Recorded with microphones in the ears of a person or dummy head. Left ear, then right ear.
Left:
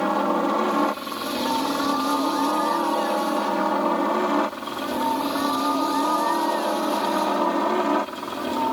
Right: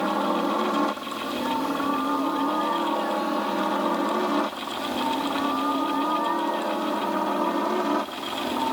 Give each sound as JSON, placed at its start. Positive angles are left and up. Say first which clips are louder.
{"t": 0.0, "sound": "a helicopter", "louder": "left 2 dB", "side_deg": 10}